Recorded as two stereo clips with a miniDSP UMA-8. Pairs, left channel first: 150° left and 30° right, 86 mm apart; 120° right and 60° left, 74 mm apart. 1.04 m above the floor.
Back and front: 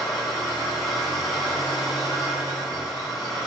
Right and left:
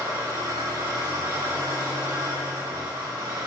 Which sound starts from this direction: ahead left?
An engine running, at 0.0 s.